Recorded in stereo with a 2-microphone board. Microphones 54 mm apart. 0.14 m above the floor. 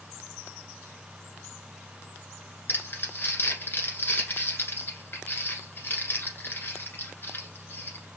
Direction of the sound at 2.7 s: 40° left (ahead or behind).